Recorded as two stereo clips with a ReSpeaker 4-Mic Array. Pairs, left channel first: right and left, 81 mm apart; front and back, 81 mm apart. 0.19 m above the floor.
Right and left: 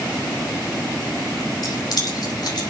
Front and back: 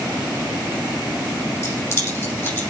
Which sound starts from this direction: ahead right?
Keys jangling, at 1.6 s.